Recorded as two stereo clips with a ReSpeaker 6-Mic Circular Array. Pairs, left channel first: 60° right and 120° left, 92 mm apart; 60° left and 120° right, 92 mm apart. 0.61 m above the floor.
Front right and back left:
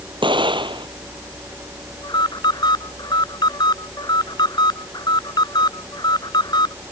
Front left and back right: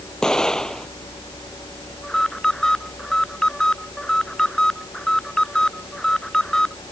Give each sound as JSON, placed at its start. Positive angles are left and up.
{"t": 0.2, "sound": "an explosion", "azimuth_deg": 140}
{"t": 2.0, "sound": "an alarm", "azimuth_deg": -25}